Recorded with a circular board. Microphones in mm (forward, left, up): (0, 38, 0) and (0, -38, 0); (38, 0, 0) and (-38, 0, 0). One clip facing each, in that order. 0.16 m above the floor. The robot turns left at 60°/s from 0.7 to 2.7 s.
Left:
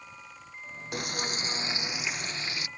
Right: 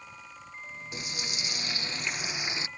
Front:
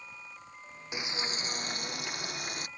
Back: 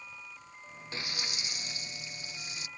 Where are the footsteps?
I don't hear footsteps.